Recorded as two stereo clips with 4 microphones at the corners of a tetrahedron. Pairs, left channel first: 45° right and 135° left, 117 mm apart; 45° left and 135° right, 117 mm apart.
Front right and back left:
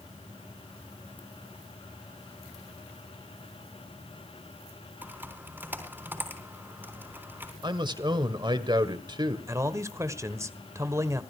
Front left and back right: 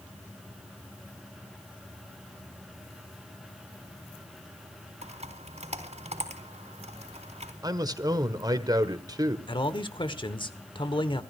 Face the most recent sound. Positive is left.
turn(degrees=80)